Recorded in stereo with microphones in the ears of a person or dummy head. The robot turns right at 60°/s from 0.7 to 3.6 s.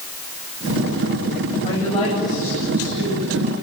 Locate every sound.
1.6 s a woman speaking: 140° left, 9.5 m; by 3.5 s 110° right, 9.5 m